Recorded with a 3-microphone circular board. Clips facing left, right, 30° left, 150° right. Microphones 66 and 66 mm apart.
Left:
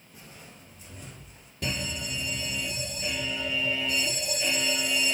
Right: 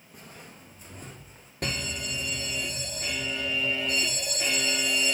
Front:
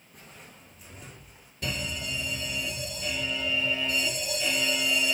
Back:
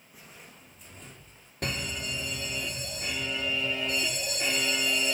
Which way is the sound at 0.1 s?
65° right.